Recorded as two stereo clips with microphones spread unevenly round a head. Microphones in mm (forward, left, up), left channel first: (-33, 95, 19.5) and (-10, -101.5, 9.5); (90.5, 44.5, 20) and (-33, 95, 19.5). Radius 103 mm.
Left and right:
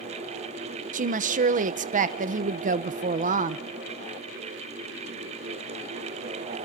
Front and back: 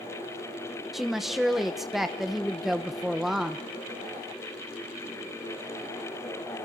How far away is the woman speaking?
About 0.8 m.